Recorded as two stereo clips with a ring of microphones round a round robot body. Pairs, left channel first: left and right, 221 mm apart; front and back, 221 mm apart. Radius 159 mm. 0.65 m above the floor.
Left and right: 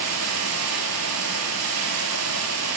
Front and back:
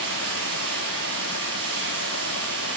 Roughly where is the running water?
Behind right.